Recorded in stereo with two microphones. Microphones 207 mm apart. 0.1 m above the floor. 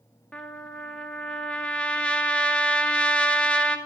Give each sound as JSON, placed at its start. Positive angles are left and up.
{"t": 0.3, "sound": "a trumpet", "side_deg": 5, "distance_m": 1.1}